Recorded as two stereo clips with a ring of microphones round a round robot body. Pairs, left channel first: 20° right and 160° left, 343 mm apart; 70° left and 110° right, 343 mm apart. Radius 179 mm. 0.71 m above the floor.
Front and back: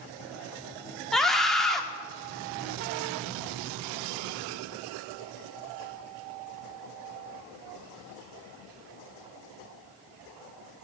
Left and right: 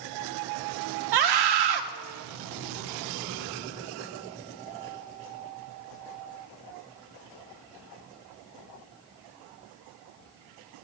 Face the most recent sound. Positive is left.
turn(degrees=-110)